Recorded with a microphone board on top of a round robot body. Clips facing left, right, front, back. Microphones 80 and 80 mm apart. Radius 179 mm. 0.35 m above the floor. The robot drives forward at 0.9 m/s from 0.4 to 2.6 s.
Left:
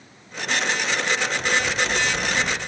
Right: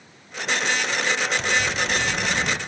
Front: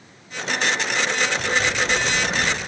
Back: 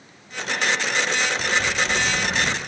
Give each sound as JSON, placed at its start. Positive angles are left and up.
{"t": 1.4, "sound": "a bird", "azimuth_deg": -100, "distance_m": 1.4}